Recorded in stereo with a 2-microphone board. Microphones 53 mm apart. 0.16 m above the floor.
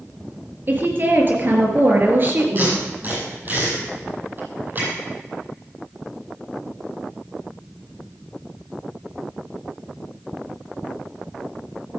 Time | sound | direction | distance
0.7 | a woman speaking | 40° right (ahead or behind) | 3 m
2.5 | tape being pulled | 35° right (ahead or behind) | 6.5 m